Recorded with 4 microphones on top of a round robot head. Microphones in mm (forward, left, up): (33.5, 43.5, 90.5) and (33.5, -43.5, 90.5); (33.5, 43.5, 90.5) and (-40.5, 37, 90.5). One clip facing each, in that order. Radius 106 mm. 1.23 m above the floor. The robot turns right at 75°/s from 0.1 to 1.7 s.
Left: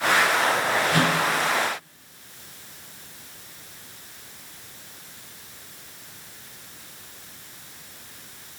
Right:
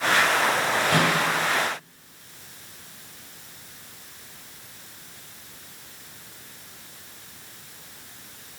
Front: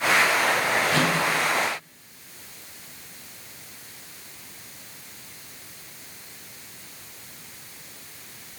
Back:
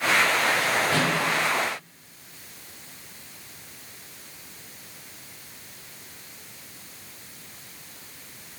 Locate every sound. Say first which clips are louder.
0.9 s a microwave: right 1 dB, front 1 dB; 110° right, 5 m; by 1.1 s 90° right, 5 m